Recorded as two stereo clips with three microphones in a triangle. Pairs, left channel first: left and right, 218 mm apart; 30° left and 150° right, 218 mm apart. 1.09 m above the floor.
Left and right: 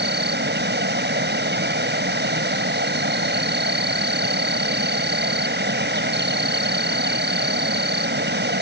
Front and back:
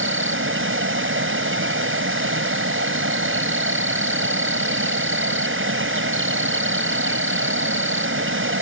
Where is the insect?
130° right.